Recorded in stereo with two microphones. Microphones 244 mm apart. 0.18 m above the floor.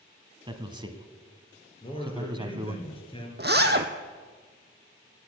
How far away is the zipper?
About 1.1 m.